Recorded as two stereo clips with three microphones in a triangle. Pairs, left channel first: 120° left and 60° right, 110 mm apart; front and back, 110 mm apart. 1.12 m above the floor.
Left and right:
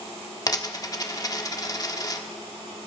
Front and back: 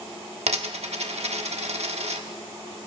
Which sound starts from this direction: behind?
A dropped coin, at 0.5 s.